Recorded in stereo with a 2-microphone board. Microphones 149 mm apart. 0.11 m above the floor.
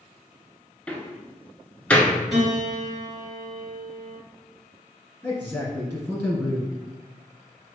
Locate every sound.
0.9 s a door slam: 10° left (ahead or behind), 0.9 m
2.3 s a piano: centre (ahead or behind), 1.8 m
5.2 s a man speaking: 15° left (ahead or behind), 1.8 m